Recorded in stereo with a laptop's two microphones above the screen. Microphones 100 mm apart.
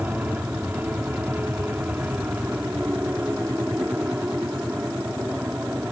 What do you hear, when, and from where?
0.0 s an aircraft: 15° right (ahead or behind)